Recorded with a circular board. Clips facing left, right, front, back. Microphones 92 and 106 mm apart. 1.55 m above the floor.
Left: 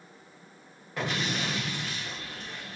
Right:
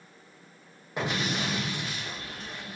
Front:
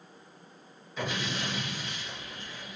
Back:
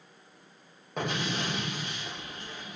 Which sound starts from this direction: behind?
An explosion, at 1.0 s.